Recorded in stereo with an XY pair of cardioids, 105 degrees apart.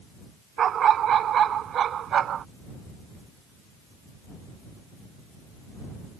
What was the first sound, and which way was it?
A dog barking, 60° right.